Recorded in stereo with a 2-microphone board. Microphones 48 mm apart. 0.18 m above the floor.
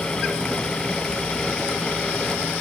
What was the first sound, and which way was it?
Only background noise.